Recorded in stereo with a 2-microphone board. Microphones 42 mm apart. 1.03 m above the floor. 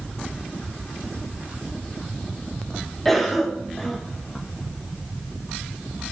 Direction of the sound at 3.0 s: 5° left (ahead or behind).